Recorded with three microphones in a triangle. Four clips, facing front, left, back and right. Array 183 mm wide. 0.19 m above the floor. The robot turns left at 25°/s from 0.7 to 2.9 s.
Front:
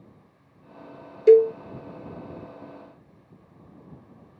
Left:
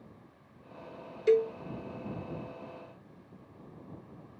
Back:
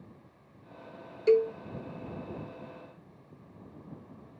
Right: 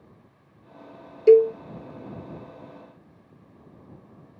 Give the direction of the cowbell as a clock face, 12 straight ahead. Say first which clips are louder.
Right 11 dB, front 9 dB; 1 o'clock.